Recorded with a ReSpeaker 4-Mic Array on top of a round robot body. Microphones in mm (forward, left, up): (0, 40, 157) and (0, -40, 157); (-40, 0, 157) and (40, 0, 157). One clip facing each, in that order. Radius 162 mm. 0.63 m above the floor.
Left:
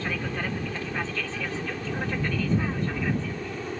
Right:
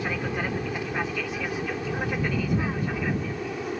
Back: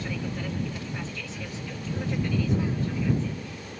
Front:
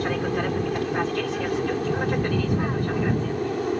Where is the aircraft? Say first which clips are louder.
Right 2 dB, front 8 dB; 15° right; by 3.8 s 10° right.